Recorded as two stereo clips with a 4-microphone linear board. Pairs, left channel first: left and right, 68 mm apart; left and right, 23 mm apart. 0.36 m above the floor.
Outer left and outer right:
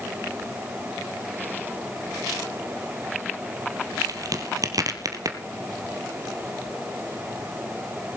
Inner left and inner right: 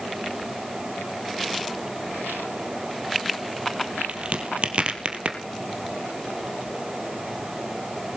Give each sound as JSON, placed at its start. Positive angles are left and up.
{"t": 4.1, "sound": "a crack", "side_deg": -60, "distance_m": 1.6}